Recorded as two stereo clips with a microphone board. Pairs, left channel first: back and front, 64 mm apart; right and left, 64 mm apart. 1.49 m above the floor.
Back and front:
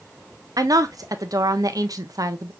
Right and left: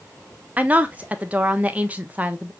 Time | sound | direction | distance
0.6 | a woman speaking | 25° left | 0.7 m